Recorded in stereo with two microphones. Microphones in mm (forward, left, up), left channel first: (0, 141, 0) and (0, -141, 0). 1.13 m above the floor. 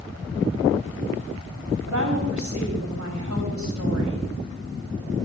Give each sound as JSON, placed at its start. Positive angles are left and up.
{"t": 1.9, "sound": "a woman speaking", "side_deg": -80, "distance_m": 6.5}